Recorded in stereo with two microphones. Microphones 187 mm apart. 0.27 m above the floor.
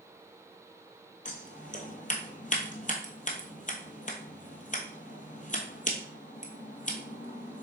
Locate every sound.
1.2 s scissors: 45° left (ahead or behind), 1.2 m